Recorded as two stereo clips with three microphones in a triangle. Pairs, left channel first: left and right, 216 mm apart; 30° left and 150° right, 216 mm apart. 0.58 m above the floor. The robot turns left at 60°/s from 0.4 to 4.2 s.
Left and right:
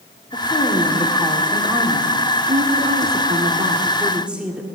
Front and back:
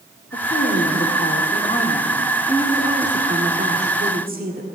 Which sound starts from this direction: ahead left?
A woman speaking, at 0.3 s.